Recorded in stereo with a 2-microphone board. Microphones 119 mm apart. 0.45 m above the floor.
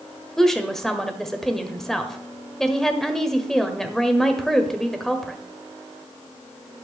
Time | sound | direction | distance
0.4 | a woman speaking | 5° left (ahead or behind) | 1.3 m